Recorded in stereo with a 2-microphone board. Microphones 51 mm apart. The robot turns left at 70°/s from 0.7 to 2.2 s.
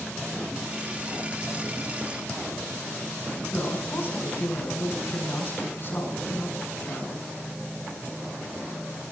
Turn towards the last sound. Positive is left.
turn(degrees=45)  # may be behind; listen again after turning